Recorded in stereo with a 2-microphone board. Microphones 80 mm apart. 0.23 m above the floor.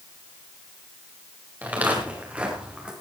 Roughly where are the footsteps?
Right.